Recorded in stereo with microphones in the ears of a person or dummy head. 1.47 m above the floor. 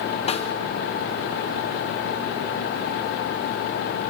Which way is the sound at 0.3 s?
35° left (ahead or behind).